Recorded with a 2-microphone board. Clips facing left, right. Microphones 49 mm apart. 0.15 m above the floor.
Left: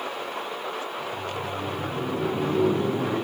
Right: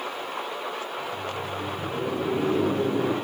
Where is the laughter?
70° right (ahead or behind), 4 m; by 3.2 s 55° right (ahead or behind), 3.5 m.